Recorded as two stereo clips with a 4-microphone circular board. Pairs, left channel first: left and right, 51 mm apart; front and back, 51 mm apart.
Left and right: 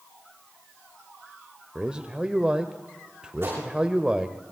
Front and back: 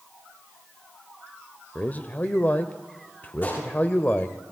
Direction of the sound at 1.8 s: 30° right.